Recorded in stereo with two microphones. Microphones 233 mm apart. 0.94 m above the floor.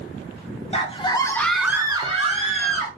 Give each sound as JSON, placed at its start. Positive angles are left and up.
{"t": 0.7, "sound": "a scream", "side_deg": 25, "distance_m": 1.0}